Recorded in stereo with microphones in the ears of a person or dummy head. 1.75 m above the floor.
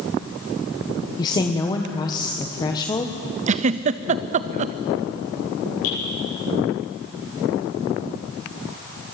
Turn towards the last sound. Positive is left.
turn(degrees=75)  # may be behind; listen again after turning